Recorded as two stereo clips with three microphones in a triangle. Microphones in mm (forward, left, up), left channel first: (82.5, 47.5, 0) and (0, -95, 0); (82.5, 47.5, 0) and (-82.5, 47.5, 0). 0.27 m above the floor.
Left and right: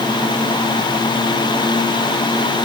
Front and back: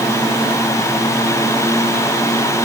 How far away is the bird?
No bird in this recording.